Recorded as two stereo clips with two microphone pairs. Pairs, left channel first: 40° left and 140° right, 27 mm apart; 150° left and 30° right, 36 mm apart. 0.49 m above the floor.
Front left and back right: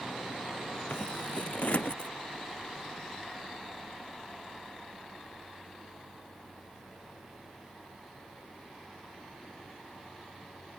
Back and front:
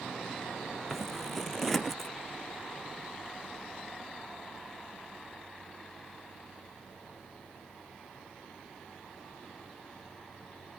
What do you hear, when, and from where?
0.9 s scissors: 70° left